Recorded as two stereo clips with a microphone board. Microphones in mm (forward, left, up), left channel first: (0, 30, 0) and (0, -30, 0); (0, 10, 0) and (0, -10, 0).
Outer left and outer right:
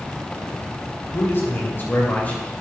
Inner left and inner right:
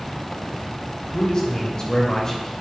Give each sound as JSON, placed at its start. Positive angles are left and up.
{"t": 1.1, "sound": "a man speaking", "side_deg": 40, "distance_m": 2.5}